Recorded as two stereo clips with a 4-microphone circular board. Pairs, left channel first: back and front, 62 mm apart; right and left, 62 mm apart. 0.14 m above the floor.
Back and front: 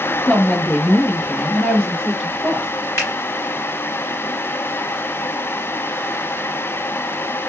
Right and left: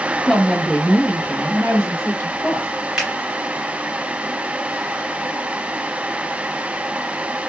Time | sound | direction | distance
0.3 | a woman speaking | 175° left | 1.1 m
3.0 | a finger snap | 165° left | 1.9 m